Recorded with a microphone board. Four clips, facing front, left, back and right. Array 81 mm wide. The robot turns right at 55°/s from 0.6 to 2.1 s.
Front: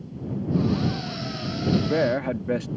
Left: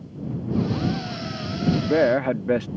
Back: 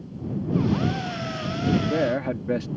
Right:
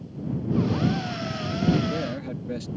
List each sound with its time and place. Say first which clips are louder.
1.6 s a man speaking: left 6 dB, front 1 dB; 60° left; by 2.7 s 85° left